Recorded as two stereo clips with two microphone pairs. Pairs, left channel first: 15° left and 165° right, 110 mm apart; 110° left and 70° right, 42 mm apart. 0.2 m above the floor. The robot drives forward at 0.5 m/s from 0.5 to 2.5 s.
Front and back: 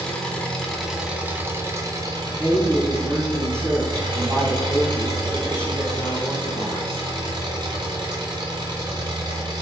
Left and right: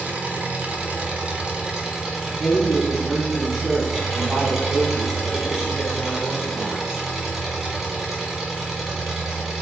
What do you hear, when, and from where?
0.0 s an engine running: 60° right, 1.0 m; by 9.6 s 145° right, 1.2 m
2.3 s a woman speaking: 125° right, 1.1 m; by 7.0 s 140° right, 1.2 m